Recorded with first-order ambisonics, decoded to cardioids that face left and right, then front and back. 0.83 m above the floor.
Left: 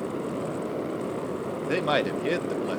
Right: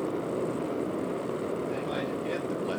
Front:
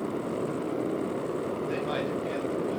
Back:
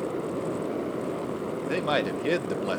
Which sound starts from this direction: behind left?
A man speaking, at 1.7 s.